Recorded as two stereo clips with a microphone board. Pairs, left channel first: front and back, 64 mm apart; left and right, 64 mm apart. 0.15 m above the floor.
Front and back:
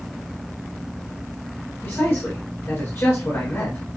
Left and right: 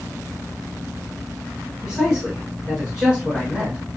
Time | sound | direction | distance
1.8 | a man speaking | 15° right | 1.5 m